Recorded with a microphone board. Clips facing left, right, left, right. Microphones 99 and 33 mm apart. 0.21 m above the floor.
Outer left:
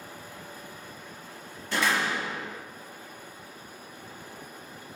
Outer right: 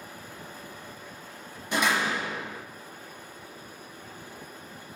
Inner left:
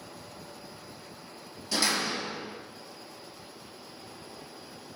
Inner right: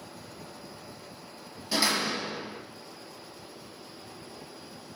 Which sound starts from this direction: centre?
A door slam, at 1.7 s.